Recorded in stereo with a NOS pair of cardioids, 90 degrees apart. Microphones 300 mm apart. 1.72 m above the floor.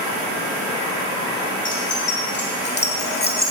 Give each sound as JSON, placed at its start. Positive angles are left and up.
{"t": 1.6, "sound": "keys jangling", "azimuth_deg": 40, "distance_m": 4.0}